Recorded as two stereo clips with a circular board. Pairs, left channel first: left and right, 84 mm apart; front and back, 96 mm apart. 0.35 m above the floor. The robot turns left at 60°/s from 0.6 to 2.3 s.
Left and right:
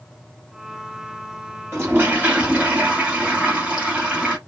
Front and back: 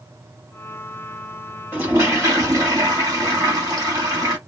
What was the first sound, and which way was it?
A toilet flushing, 125° right.